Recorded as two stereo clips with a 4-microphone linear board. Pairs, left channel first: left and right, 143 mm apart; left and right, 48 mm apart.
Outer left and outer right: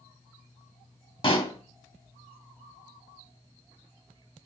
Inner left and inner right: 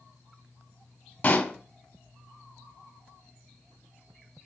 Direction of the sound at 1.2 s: 40° left (ahead or behind).